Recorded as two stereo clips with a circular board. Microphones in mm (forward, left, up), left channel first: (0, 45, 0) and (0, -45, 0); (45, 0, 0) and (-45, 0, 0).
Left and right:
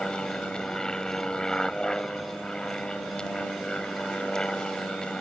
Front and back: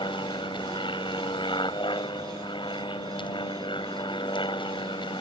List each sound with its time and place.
0.0 s an aircraft: 10° left